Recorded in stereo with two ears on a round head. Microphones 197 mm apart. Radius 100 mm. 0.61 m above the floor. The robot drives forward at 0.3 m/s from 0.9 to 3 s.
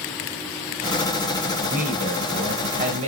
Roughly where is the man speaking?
Right.